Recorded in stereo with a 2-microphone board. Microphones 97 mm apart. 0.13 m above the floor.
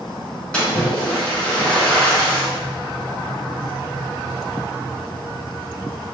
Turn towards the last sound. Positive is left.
turn(degrees=10)  # may be behind; listen again after turning